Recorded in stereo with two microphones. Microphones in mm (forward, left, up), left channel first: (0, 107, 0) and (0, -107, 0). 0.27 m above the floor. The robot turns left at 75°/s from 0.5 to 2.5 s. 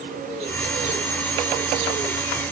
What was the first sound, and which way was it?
Only background noise.